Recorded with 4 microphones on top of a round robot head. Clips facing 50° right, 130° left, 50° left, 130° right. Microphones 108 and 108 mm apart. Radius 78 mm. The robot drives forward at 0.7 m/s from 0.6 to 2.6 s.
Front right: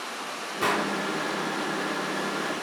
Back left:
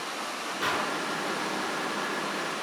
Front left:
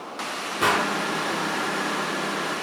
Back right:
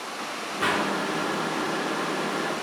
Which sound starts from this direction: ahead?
A gunshot, at 0.6 s.